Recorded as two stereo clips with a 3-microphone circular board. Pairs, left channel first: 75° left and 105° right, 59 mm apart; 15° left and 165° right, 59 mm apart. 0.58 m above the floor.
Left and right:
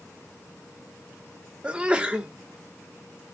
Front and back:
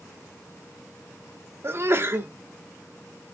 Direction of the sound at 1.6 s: 165° right.